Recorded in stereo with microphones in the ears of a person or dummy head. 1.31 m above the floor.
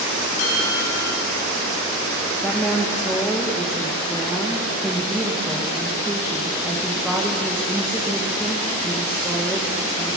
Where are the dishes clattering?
85° left, 6.5 m.